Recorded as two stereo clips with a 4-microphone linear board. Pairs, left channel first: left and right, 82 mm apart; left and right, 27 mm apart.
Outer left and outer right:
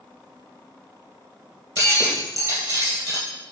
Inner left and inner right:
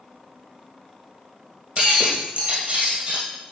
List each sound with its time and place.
1.8 s breaking glass: 45° right (ahead or behind), 2 m